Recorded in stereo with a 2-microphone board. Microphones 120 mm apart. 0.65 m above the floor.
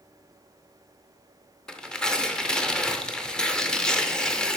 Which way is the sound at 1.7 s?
5° left (ahead or behind).